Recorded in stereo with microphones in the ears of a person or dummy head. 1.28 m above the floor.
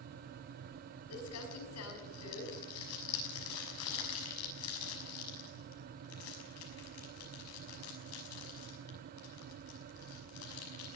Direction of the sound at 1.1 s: 80° left.